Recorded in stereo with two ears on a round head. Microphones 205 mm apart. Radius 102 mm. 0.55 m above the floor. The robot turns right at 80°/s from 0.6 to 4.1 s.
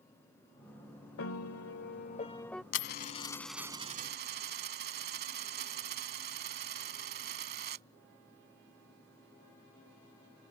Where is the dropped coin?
120° left; by 7.8 s 135° right.